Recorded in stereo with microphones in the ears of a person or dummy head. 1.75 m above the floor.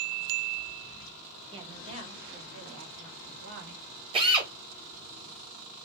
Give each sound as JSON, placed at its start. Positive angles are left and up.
{"t": 1.5, "sound": "a woman speaking", "side_deg": -25, "distance_m": 1.9}
{"t": 4.1, "sound": "a drill", "side_deg": -25, "distance_m": 1.7}